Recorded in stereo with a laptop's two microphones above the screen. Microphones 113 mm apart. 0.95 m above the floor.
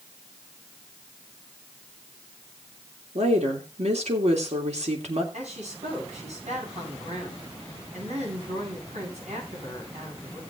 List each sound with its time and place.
3.1 s a woman speaking: 75° right (ahead or behind), 3 m
5.3 s a woman speaking: 85° right, 9 m